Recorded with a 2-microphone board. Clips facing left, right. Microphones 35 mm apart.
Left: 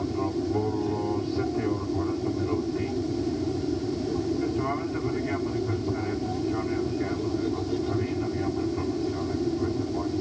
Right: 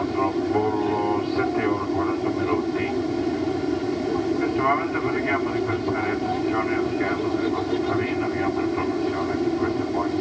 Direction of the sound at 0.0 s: 45° right (ahead or behind).